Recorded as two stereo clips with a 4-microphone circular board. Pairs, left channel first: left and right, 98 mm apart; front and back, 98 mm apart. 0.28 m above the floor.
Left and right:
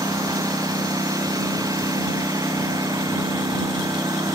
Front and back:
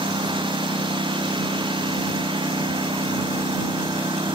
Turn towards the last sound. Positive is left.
turn(degrees=-145)